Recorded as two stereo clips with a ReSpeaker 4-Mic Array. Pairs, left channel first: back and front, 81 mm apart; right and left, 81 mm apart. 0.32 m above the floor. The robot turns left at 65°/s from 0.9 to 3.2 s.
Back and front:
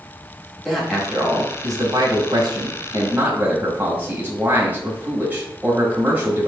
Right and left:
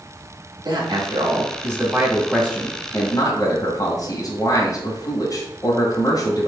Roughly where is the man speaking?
Left.